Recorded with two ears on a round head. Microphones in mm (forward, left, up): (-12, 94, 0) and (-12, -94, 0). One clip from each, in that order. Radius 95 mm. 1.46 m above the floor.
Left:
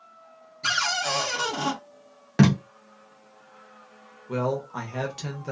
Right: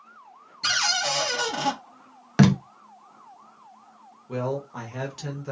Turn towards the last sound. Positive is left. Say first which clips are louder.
# left 2 dB
turn(degrees=10)  # may be behind; listen again after turning